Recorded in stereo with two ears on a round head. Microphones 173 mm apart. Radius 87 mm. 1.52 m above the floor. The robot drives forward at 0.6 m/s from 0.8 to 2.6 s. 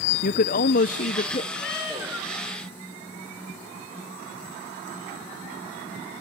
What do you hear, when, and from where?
0.2 s a man speaking: 45° left (ahead or behind), 0.6 m; by 1.4 s 30° left (ahead or behind), 0.9 m
1.5 s a cat meowing: 60° left (ahead or behind), 8 m